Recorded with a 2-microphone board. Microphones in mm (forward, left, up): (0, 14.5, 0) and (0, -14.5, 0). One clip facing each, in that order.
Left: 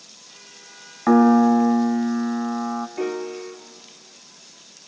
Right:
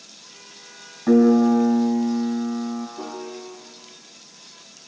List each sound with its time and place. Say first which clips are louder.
1.1 s a piano: left 1 dB; 50° left (ahead or behind), 2 m
3.0 s a piano: left 6 dB; 70° left (ahead or behind), 1.6 m